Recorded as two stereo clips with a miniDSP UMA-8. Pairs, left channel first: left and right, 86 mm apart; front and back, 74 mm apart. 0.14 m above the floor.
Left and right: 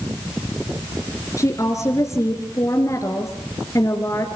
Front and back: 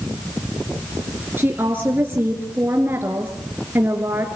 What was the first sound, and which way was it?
A woman speaking, 130° left.